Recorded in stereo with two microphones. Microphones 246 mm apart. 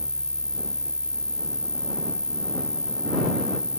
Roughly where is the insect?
Centre.